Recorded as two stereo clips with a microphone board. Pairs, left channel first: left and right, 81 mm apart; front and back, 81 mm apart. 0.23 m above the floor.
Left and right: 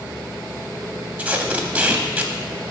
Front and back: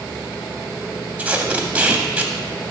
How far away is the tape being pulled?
About 0.6 m.